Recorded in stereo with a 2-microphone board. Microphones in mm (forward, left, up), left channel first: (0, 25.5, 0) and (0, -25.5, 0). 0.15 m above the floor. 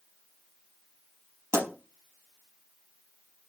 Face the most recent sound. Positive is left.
turn(degrees=-65)  # may be behind; listen again after turning